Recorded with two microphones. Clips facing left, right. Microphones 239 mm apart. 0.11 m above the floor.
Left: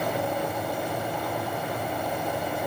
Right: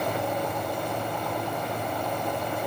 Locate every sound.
Only background noise.